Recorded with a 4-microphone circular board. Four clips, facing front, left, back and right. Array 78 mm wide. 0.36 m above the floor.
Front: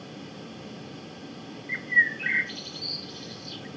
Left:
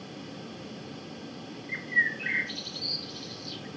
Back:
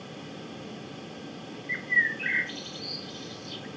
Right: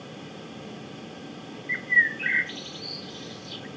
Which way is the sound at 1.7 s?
100° right.